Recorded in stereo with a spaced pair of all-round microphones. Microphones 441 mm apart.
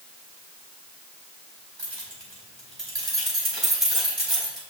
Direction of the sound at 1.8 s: 80° right.